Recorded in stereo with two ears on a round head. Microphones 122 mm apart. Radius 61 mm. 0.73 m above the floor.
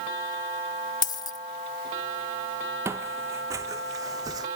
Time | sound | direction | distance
1.0 | a dropped coin | 30° left (ahead or behind) | ?
2.9 | footsteps | 20° right (ahead or behind) | ?